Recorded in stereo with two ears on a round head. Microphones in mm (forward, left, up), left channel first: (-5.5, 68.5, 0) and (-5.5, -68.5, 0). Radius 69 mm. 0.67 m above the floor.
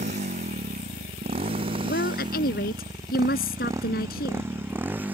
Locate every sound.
0.0 s a motorcycle: 45° right (ahead or behind); by 5.1 s 10° right (ahead or behind)
1.8 s a woman speaking: 70° left (ahead or behind)